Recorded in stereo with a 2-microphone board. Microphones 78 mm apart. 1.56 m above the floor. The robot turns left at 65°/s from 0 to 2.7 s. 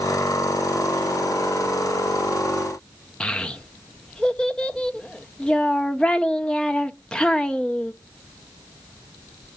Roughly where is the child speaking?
Centre.